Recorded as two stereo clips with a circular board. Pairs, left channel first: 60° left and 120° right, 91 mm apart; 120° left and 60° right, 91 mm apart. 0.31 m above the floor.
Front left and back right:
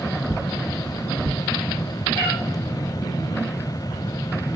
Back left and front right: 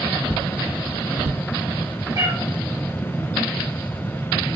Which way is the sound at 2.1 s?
105° right.